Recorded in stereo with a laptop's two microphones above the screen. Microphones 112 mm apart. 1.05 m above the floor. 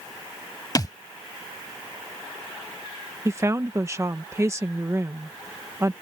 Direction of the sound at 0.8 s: 35° left (ahead or behind).